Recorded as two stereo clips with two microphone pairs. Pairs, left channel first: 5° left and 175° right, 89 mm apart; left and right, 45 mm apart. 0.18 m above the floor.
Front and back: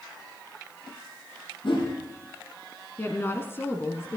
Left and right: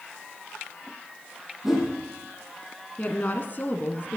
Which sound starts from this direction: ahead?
A whoosh, at 1.6 s.